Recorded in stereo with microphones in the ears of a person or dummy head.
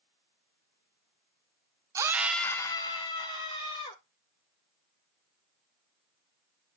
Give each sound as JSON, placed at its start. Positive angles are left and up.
{"t": 1.9, "sound": "a scream", "side_deg": -15, "distance_m": 0.6}